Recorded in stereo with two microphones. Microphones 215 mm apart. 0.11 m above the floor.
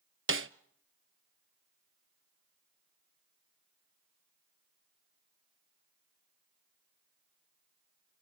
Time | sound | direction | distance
0.3 | a snare drum | 70° right (ahead or behind) | 0.5 m